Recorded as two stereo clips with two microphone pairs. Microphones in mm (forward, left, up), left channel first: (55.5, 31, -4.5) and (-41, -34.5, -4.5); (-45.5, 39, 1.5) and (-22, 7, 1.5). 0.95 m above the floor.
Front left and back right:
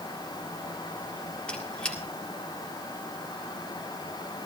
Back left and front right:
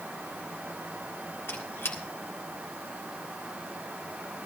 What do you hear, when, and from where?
1.5 s a squeak: 115° left, 1.9 m